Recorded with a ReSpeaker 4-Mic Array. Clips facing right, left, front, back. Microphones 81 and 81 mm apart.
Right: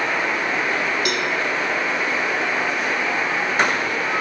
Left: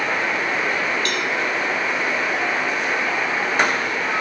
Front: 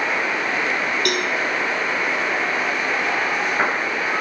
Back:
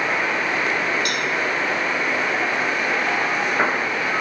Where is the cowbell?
10° right, 1.5 m.